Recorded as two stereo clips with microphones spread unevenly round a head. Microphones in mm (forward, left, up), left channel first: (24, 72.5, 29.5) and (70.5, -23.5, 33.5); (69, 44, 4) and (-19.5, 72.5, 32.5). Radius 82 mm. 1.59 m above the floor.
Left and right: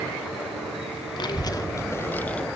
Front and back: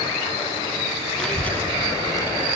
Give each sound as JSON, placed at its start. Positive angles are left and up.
{"t": 1.2, "sound": "a child speaking", "azimuth_deg": 70, "distance_m": 1.2}